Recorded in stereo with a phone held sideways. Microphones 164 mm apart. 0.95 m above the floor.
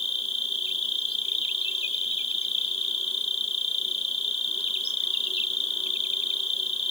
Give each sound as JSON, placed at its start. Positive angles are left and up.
{"t": 0.0, "sound": "an insect", "side_deg": 35}